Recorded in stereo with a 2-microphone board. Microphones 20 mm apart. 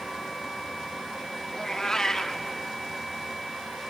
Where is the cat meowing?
30° left (ahead or behind), 0.6 m.